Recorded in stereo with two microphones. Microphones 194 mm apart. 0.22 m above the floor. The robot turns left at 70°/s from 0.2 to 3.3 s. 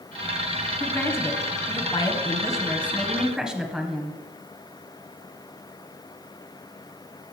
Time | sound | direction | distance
0.8 | a woman speaking | 5° left (ahead or behind) | 1.5 m